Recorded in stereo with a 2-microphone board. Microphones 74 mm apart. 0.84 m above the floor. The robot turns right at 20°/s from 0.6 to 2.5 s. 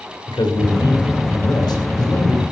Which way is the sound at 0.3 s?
85° left.